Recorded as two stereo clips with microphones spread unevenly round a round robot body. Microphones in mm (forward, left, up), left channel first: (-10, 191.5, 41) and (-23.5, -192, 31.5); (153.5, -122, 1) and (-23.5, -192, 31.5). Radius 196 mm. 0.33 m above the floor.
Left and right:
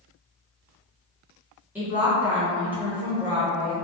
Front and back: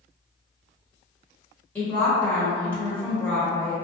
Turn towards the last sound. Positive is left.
turn(degrees=-15)